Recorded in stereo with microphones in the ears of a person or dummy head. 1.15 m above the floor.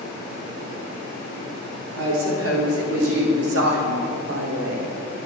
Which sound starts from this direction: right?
A woman speaking, at 1.9 s.